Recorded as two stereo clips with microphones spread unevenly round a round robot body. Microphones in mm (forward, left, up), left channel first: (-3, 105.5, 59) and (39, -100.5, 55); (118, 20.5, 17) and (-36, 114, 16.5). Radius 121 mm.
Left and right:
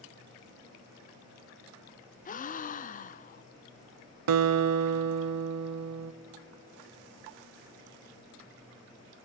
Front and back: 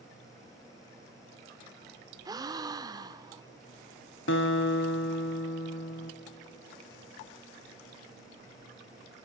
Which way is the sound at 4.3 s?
80° right.